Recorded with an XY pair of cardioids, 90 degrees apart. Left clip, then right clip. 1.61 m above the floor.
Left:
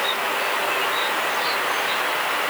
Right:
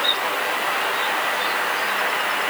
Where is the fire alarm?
I don't hear a fire alarm.